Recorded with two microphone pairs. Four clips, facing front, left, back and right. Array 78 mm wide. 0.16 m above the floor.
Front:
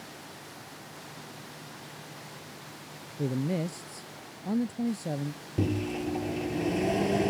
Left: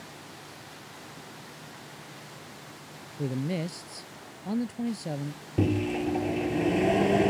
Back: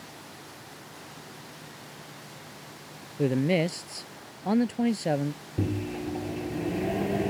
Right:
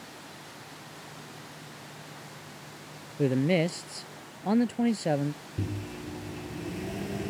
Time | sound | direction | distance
3.2 | a man speaking | 140° right | ?
5.6 | a microwave | 75° left | ?